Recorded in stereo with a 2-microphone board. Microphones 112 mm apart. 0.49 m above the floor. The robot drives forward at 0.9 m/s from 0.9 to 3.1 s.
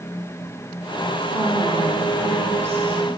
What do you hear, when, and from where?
1.3 s a woman speaking: 25° right (ahead or behind), 1.0 m; by 3.1 s 20° right (ahead or behind), 1.3 m